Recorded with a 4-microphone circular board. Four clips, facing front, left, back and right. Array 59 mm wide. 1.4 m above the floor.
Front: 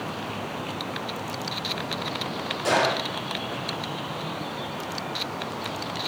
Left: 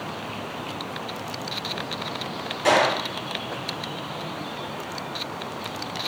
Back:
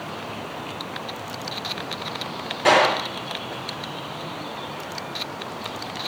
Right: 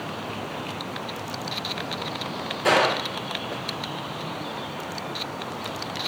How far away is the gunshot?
About 3.5 m.